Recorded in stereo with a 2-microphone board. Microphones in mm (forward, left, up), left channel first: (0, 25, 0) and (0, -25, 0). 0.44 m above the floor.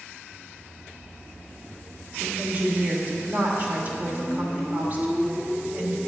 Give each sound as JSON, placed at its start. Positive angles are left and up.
{"t": 2.2, "sound": "a woman speaking", "side_deg": -35, "distance_m": 1.1}